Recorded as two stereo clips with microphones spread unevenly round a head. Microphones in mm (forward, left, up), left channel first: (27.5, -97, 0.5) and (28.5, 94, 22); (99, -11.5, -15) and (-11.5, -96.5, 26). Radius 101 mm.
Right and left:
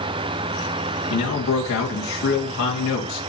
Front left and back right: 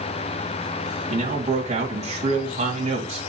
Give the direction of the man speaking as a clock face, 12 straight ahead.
3 o'clock.